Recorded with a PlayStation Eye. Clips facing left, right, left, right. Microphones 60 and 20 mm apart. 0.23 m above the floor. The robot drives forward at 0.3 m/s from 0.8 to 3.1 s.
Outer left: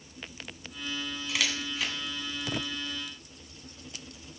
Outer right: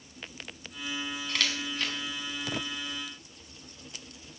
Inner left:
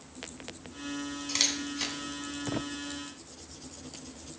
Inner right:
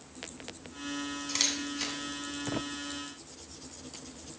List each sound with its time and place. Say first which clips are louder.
1.3 s a camera shutter: outer left 1 dB, inner left 2 dB; 5° left (ahead or behind), 1.8 m